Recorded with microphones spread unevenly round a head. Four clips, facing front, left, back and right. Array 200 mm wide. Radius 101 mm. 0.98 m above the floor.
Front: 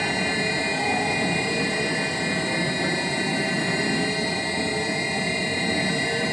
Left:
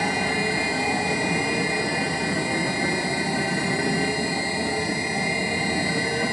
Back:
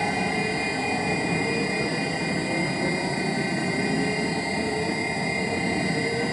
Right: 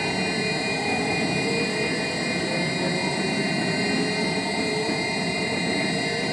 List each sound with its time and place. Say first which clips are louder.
0.0 s a machine running: left 2 dB, even; 60° left, 1.0 m